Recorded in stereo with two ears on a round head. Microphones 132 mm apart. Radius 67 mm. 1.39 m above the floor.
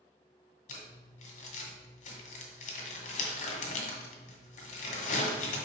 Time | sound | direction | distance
0.7 | crumpling | 50° left (ahead or behind) | 1.7 m